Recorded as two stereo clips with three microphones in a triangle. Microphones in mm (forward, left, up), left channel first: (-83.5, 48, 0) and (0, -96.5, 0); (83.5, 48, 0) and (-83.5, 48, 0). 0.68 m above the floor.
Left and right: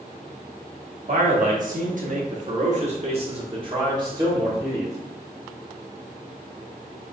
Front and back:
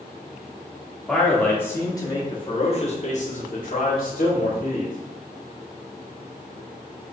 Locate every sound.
1.1 s a man speaking: 85° right, 1.3 m; by 5.0 s 10° left, 1.7 m